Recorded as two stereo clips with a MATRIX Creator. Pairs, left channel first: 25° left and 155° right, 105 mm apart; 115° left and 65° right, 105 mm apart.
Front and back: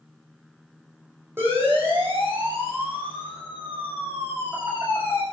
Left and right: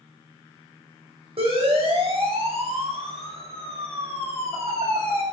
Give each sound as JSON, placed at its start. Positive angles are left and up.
{"t": 1.4, "sound": "a siren", "azimuth_deg": -90, "distance_m": 8.5}